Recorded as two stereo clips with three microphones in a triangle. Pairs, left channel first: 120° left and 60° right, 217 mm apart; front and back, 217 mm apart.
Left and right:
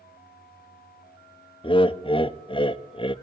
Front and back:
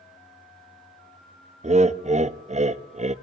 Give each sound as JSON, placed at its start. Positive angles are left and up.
{"t": 1.6, "sound": "laughter", "azimuth_deg": 165, "distance_m": 0.5}